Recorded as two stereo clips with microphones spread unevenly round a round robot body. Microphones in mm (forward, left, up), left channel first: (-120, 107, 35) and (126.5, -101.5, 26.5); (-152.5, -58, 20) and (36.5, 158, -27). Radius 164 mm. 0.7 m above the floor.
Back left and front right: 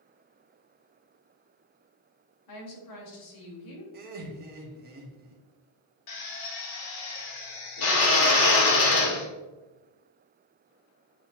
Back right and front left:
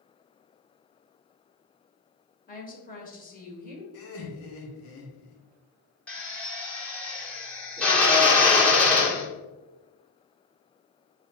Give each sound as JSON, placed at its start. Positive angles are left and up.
{"t": 2.5, "sound": "a woman speaking", "azimuth_deg": 165, "distance_m": 2.5}
{"t": 3.9, "sound": "laughter", "azimuth_deg": -90, "distance_m": 1.6}
{"t": 6.1, "sound": "a drill", "azimuth_deg": 140, "distance_m": 1.9}